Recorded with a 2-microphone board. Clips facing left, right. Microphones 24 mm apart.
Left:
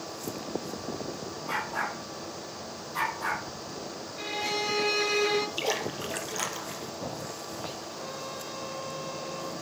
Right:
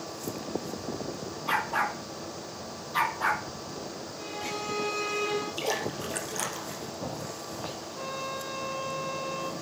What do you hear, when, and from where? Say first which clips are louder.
1.5 s a dog barking: right 4 dB; 65° right (ahead or behind), 2.5 m; by 3.4 s 45° right (ahead or behind), 3 m
4.2 s a violin: left 5 dB; 60° left (ahead or behind), 1.5 m
5.6 s a splash: even; 15° left (ahead or behind), 1.9 m
8.0 s a trumpet: right 3 dB; 35° right (ahead or behind), 1.9 m